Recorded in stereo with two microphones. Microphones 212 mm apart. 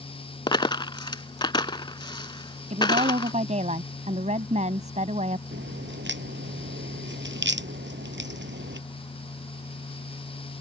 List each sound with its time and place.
0.5 s a dropped coin: 20° left (ahead or behind)
2.7 s a woman speaking: 35° right (ahead or behind)
5.5 s a crack: 60° right (ahead or behind)